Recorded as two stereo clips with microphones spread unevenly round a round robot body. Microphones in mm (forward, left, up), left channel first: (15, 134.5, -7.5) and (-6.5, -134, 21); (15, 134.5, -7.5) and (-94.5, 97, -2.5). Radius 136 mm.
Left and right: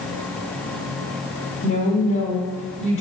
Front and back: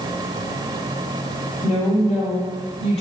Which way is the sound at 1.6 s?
25° left.